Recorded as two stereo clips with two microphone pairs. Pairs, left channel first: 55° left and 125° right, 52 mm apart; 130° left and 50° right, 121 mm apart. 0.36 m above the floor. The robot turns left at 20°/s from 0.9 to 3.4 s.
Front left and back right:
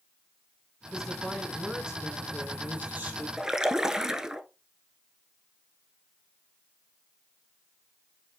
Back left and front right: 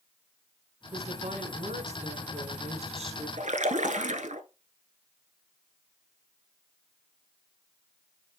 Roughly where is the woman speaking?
Ahead right.